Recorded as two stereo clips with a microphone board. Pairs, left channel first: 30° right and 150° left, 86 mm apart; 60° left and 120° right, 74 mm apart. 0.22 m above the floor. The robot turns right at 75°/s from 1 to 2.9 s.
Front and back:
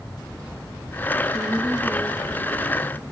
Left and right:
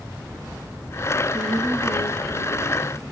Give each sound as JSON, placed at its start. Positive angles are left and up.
{"t": 1.2, "sound": "a woman speaking", "azimuth_deg": -175, "distance_m": 3.5}